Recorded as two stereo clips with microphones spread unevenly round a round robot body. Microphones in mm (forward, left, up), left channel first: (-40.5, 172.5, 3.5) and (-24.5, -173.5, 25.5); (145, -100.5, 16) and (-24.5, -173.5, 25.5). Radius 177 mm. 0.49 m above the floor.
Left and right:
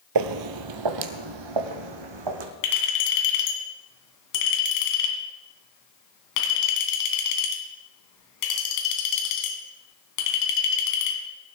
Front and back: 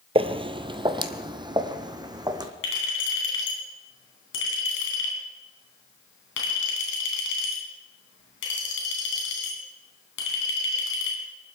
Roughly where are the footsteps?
Right.